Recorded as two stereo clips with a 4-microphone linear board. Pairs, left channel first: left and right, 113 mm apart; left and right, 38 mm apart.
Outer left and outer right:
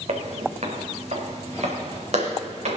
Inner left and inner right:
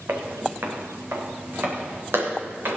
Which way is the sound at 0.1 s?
70° right (ahead or behind).